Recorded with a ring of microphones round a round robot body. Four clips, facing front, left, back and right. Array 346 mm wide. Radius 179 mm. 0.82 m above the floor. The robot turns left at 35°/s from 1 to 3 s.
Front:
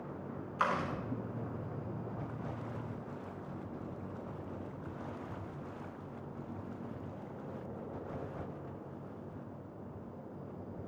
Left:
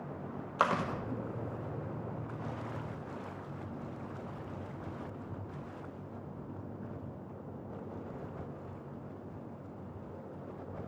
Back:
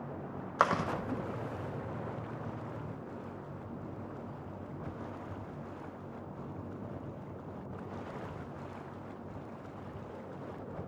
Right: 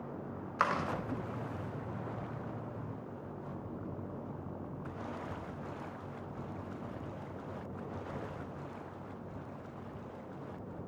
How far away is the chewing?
About 0.8 m.